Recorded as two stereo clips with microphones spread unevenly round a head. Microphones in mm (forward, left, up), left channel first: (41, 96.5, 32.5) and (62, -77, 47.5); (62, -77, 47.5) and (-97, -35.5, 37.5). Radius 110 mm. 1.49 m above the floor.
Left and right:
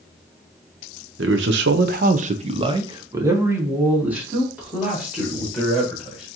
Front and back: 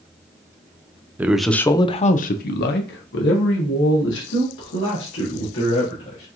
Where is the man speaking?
115° right, 0.6 m; by 6.2 s 5° left, 2.5 m.